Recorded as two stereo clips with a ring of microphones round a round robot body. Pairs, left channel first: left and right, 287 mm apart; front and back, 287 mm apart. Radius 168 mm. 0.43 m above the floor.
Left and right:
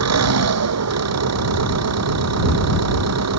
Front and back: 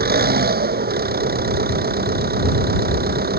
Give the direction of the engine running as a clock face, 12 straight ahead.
4 o'clock.